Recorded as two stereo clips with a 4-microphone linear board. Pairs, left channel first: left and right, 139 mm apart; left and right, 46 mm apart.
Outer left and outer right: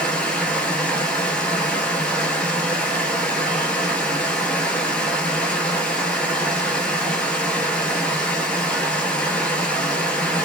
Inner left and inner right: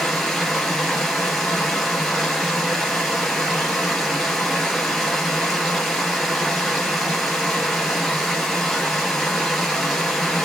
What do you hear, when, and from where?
0.0 s running water: 10° left (ahead or behind), 2 m